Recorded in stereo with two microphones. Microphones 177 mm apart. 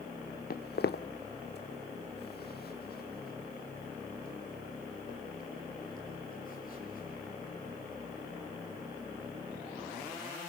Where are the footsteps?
65° left (ahead or behind), 1.2 m; by 10.1 s 55° left (ahead or behind), 10.5 m.